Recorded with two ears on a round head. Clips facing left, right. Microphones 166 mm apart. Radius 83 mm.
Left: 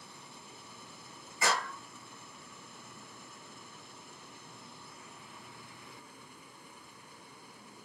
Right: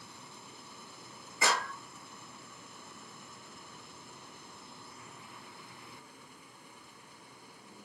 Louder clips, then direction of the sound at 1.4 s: Even; 65° right (ahead or behind).